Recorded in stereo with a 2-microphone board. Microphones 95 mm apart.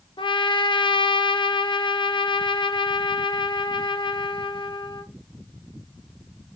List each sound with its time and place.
0.2 s a trumpet: 60° left (ahead or behind), 0.8 m